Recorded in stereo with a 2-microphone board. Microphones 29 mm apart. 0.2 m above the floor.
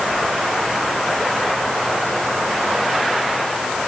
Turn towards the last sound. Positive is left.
No sound to turn to.